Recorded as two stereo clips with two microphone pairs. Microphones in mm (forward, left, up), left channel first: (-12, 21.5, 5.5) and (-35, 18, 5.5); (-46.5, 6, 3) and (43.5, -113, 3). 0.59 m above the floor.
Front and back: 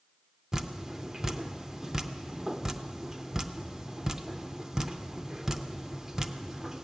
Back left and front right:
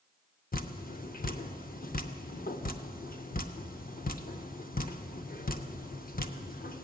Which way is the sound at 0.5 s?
115° left.